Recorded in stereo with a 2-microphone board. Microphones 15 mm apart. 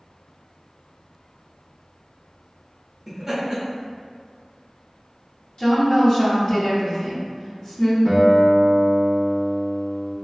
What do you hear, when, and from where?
3.1 s laughter: 10° right (ahead or behind), 0.6 m
5.6 s a woman speaking: 55° left (ahead or behind), 1.1 m
8.1 s a guitar: 45° left (ahead or behind), 0.7 m